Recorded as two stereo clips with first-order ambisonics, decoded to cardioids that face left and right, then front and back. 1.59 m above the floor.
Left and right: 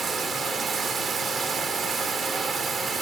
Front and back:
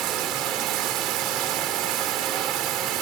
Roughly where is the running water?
Behind right.